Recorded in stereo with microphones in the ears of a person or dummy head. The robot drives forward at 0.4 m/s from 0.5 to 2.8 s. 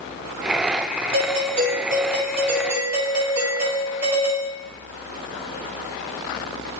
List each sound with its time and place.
1.1 s a doorbell: 40° right (ahead or behind), 2 m; by 4.5 s 30° right (ahead or behind), 2.5 m